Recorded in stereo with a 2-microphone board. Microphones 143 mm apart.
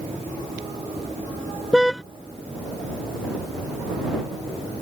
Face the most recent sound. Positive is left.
turn(degrees=0)  # may be behind; listen again after turning